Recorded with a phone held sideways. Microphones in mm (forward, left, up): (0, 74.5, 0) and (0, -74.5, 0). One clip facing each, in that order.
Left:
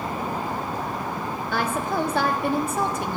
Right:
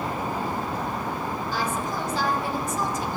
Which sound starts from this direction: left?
A woman speaking, at 1.5 s.